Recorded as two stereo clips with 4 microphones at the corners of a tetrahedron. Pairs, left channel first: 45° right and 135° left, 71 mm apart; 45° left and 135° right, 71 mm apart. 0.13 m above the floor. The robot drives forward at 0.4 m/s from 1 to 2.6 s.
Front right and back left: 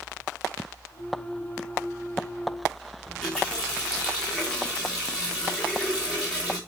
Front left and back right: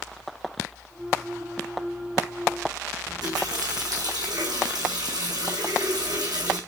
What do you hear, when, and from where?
3.1 s a running tap: 125° right, 5 m